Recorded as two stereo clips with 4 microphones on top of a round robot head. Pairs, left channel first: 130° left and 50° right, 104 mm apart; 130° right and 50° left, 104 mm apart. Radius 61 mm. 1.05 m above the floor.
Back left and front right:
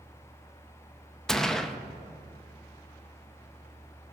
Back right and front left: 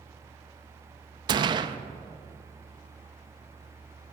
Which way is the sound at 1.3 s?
45° left.